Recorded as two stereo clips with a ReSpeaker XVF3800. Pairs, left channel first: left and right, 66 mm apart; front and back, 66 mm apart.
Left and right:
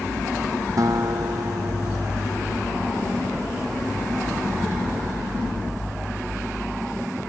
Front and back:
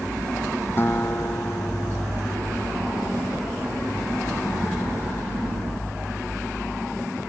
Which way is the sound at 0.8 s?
55° right.